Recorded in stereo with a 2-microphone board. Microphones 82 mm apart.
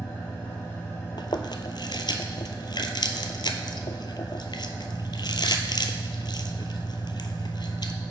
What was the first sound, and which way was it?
An engine running, 25° left (ahead or behind).